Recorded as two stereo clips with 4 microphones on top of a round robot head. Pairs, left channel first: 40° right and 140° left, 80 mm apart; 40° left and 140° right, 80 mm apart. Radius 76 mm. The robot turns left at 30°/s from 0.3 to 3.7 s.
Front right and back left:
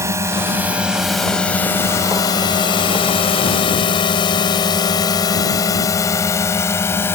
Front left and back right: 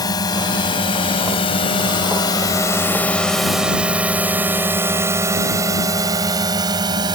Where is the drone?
85° left; by 7.2 s 105° right.